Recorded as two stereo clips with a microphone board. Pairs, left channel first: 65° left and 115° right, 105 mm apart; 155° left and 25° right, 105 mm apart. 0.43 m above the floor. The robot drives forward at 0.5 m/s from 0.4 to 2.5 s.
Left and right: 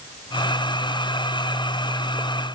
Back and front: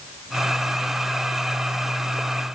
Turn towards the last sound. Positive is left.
No sound to turn to.